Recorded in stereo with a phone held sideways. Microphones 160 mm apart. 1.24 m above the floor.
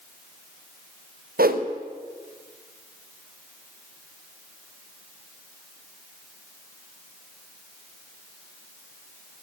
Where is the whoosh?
70° right (ahead or behind), 0.8 m.